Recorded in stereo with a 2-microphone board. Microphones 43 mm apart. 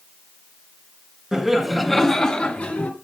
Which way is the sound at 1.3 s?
10° right (ahead or behind).